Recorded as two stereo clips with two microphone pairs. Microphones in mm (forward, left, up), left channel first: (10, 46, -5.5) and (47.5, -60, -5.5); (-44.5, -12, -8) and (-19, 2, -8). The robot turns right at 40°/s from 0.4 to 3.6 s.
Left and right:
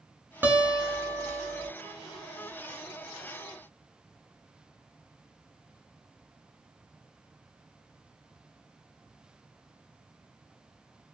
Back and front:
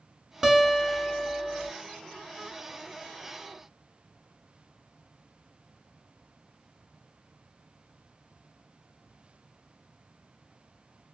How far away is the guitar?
About 0.6 m.